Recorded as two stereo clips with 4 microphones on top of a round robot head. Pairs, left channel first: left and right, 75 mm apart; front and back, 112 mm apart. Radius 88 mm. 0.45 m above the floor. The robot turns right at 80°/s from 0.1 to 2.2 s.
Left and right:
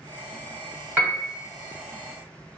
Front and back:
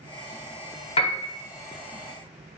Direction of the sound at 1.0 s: 30° right.